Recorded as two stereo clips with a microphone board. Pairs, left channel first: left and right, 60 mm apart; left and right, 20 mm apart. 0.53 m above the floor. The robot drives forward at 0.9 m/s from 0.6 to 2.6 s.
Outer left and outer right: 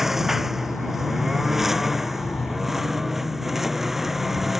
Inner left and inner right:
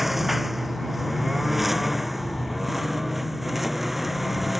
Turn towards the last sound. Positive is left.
turn(degrees=-5)  # may be behind; listen again after turning